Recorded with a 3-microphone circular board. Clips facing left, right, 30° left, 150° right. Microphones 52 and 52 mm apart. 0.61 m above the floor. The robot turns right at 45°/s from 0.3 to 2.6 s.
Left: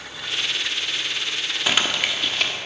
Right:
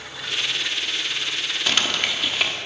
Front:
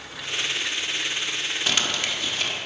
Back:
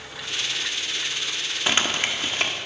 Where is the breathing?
No breathing in this recording.